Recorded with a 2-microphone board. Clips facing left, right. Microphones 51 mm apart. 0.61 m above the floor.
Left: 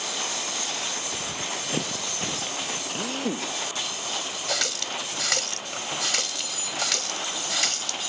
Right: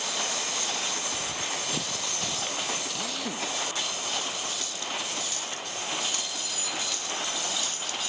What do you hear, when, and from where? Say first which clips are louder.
1.1 s running footsteps: left 1 dB; 30° left (ahead or behind); by 2.8 s 25° left (ahead or behind)
2.9 s a drill: left 4 dB; 35° left (ahead or behind)
4.5 s a running tap: left 4 dB; 80° left